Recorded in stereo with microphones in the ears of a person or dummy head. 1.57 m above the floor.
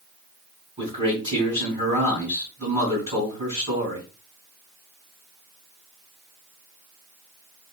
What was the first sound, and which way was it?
A man speaking, 30° right (ahead or behind).